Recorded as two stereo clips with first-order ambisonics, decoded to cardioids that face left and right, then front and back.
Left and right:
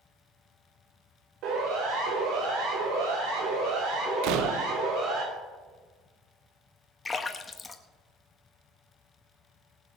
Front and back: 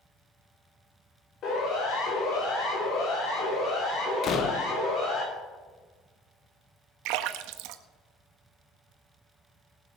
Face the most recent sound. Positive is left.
turn(degrees=165)